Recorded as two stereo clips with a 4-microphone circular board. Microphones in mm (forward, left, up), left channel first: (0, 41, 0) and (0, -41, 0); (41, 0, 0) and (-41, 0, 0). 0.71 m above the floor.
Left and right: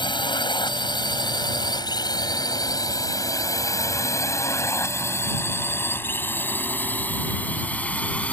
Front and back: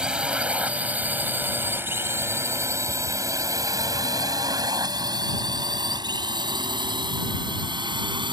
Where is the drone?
100° left; by 8.3 s 165° left.